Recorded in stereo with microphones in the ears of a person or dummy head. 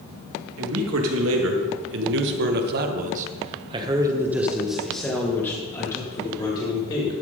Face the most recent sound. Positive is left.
turn(degrees=30)  # may be behind; listen again after turning